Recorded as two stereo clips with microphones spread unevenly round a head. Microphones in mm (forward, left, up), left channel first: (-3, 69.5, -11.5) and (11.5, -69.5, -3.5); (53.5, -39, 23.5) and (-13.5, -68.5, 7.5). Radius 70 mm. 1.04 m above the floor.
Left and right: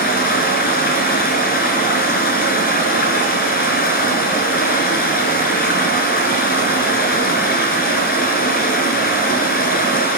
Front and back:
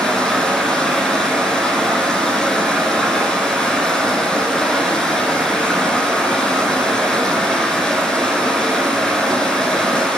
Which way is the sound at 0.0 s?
105° left.